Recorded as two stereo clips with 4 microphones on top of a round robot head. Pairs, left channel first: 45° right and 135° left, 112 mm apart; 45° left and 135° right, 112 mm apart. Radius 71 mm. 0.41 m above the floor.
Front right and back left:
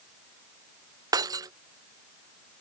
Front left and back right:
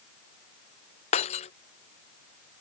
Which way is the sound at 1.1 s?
75° left.